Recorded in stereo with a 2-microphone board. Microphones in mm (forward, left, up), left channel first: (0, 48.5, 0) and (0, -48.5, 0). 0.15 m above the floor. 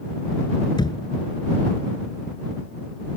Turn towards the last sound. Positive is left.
turn(degrees=60)  # may be behind; listen again after turning